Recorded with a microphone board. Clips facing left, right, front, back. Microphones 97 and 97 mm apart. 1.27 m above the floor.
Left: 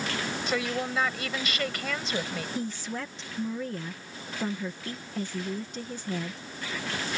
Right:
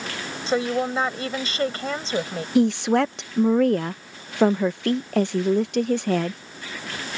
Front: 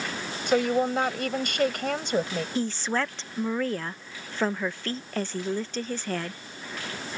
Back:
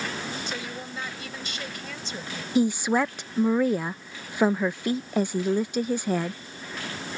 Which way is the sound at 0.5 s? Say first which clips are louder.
Right 9 dB, front 12 dB; 30° right.